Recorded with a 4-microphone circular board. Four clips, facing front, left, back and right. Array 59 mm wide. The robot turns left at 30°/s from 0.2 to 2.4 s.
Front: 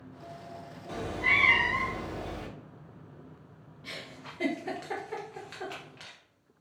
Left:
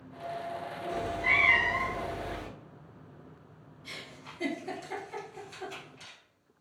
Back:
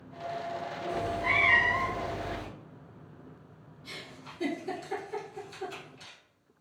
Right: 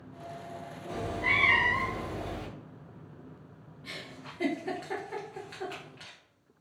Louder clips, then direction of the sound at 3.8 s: Right 2 dB, front 2 dB; 25° right.